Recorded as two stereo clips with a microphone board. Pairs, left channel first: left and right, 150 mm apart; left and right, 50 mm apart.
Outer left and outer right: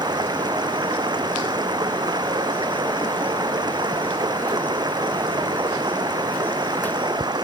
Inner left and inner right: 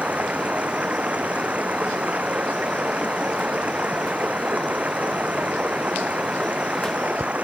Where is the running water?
25° right (ahead or behind).